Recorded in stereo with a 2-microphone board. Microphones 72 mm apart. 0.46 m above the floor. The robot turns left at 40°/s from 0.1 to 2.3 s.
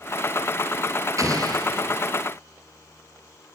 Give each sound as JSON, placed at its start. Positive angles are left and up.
{"t": 1.2, "sound": "an explosion", "azimuth_deg": -50, "distance_m": 4.5}